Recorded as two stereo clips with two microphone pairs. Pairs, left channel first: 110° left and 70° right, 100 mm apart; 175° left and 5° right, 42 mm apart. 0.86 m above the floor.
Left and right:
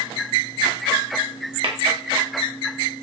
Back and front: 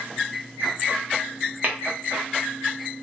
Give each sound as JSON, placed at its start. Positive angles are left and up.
{"t": 1.6, "sound": "tapping", "azimuth_deg": -50, "distance_m": 1.7}